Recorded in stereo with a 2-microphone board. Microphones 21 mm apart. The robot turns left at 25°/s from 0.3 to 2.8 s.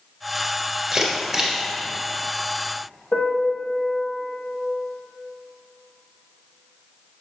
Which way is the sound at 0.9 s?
25° right (ahead or behind).